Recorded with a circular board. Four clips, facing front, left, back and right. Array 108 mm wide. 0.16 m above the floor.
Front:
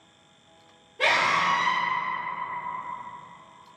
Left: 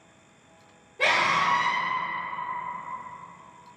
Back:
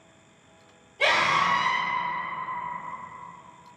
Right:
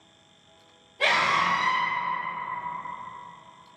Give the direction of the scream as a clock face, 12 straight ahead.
11 o'clock.